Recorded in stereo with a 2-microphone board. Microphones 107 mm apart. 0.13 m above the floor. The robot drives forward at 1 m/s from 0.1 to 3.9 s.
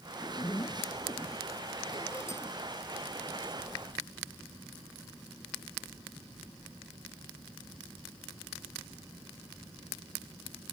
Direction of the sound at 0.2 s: 40° left (ahead or behind).